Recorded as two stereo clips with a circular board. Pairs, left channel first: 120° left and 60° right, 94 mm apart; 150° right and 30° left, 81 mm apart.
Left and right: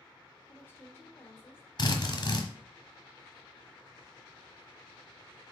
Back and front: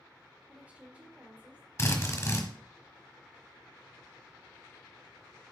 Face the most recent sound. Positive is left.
turn(degrees=155)